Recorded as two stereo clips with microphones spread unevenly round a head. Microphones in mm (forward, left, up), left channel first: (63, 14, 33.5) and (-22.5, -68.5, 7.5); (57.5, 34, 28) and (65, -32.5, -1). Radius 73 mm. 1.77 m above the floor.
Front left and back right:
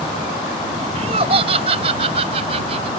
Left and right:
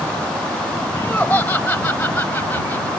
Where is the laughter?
170° left.